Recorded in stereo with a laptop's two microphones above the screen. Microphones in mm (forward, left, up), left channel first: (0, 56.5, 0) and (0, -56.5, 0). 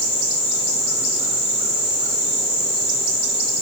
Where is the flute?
I don't hear a flute.